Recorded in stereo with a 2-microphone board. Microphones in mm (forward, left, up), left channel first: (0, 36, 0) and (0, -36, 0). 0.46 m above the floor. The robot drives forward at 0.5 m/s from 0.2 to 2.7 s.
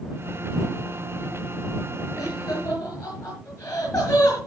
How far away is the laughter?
About 7 m.